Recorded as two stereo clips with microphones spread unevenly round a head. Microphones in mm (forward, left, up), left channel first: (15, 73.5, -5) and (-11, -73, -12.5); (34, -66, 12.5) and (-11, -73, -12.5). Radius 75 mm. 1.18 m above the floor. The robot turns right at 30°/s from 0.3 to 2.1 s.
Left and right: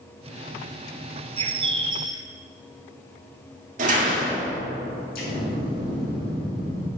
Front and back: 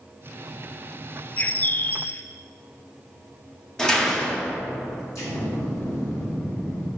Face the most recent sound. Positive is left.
turn(degrees=55)